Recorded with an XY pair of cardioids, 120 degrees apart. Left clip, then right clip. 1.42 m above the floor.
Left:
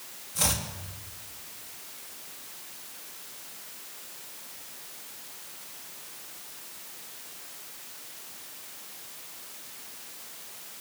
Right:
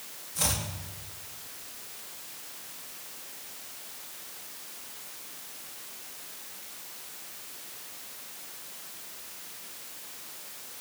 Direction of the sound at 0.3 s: 15° left.